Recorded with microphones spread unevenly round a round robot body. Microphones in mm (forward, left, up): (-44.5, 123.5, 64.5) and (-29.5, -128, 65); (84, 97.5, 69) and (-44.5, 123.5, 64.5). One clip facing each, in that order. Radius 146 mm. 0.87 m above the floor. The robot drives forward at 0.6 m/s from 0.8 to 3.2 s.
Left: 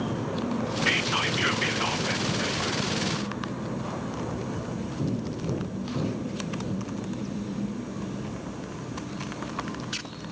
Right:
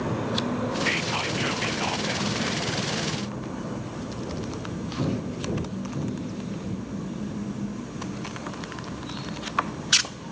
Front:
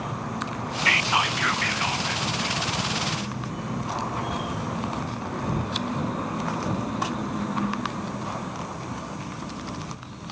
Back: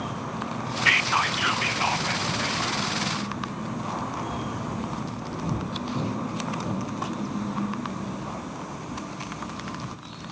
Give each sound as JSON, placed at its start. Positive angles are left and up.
{"t": 0.8, "sound": "whispering", "azimuth_deg": 30, "distance_m": 0.6}